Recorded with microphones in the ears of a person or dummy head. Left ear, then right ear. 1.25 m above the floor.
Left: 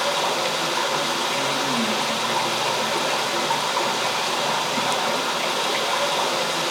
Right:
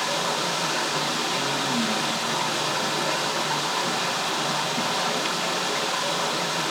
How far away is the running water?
About 6 m.